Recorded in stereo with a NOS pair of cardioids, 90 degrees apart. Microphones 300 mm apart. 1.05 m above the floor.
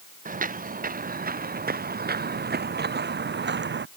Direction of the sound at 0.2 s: 30° right.